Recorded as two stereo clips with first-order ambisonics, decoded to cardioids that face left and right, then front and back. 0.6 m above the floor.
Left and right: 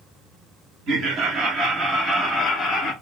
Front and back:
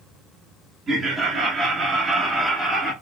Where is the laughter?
110° right, 1.1 m; by 2.9 s 90° left, 0.8 m.